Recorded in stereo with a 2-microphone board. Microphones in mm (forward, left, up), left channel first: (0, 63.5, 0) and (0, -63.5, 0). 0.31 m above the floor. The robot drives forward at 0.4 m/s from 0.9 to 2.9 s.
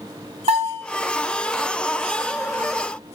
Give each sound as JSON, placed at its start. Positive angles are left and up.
{"t": 0.5, "sound": "a bell", "side_deg": -55, "distance_m": 1.4}